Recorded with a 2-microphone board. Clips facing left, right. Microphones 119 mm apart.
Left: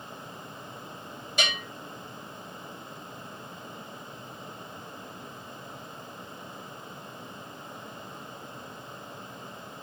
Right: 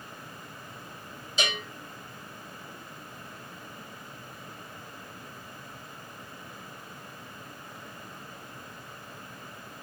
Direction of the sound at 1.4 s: 55° left (ahead or behind).